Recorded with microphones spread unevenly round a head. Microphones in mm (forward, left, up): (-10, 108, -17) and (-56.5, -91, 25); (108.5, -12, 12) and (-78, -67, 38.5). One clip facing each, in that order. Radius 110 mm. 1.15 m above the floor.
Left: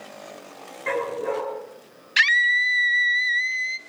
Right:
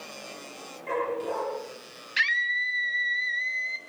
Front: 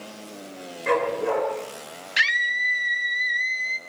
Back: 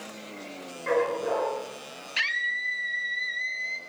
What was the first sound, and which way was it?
A dog barking, 75° left.